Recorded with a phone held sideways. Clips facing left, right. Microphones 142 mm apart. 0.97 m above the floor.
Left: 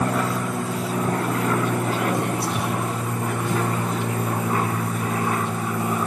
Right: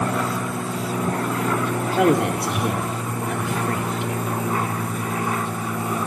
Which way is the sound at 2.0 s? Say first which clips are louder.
Right 5 dB; 75° right (ahead or behind).